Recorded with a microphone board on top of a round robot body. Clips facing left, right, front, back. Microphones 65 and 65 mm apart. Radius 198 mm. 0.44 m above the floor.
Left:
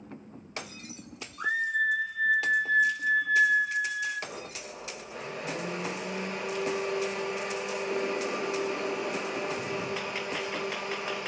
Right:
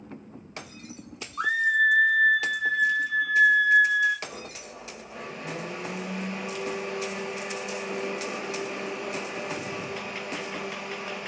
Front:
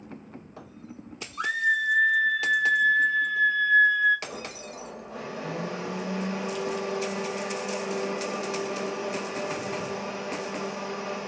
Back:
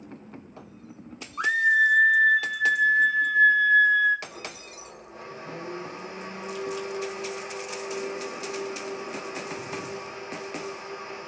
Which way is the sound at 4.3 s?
Straight ahead.